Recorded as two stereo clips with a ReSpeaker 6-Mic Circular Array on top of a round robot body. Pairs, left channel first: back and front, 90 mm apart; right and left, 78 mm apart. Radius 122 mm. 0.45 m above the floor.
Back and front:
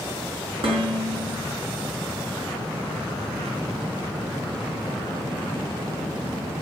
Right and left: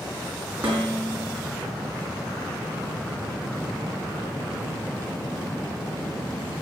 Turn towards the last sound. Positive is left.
turn(degrees=20)